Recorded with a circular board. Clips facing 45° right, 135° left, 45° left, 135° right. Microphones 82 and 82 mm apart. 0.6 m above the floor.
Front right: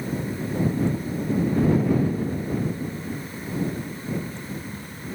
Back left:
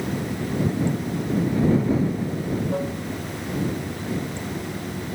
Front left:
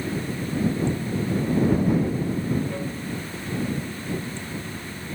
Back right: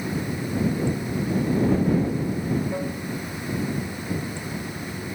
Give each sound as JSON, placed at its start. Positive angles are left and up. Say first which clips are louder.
{"t": 0.0, "sound": "running water", "louder": "back left 2 dB, even", "azimuth_deg": 150}